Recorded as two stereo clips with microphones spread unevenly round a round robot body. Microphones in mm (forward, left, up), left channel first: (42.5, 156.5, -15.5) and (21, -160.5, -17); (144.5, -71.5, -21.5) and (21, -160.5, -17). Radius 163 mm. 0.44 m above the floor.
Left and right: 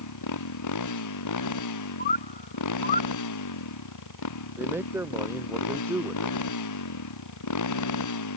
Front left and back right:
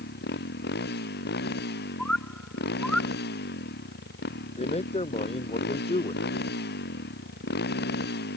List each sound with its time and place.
0.0 s a motorcycle: 55° left
2.0 s a bird: 115° left
4.6 s a man speaking: 10° right